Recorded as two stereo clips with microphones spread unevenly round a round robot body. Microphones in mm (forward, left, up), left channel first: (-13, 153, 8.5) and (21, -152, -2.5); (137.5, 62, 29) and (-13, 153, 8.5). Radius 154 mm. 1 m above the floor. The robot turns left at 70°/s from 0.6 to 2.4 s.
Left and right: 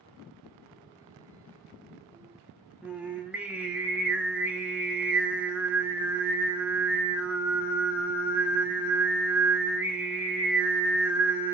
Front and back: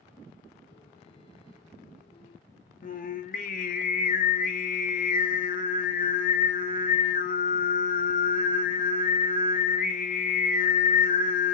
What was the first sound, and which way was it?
Singing, straight ahead.